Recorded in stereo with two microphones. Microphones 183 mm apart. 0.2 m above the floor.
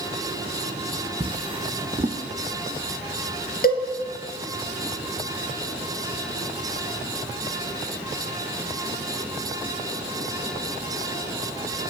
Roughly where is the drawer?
Right.